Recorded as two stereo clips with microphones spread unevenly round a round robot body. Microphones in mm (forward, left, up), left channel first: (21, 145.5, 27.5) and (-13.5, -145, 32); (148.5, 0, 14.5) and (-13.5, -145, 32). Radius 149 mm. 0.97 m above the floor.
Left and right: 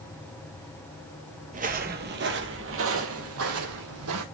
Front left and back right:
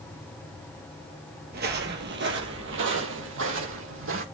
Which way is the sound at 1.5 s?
150° right.